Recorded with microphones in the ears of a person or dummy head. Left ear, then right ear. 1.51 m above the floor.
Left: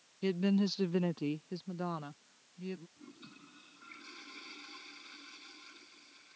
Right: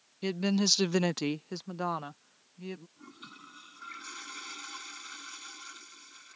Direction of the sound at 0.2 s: 20° right (ahead or behind).